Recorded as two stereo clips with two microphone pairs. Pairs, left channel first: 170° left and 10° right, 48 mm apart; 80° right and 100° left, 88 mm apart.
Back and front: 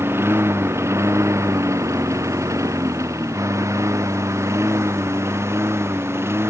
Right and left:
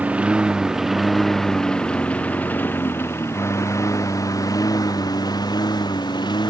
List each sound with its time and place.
0.0 s a lawn mower: 25° left; by 6.5 s 45° right